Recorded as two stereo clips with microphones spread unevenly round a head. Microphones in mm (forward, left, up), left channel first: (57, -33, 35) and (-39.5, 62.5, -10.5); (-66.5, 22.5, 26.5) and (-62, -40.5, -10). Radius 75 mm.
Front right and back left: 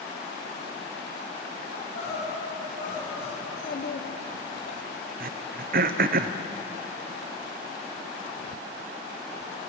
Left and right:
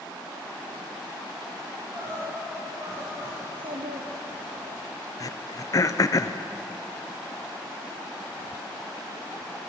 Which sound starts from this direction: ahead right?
A child speaking, at 3.4 s.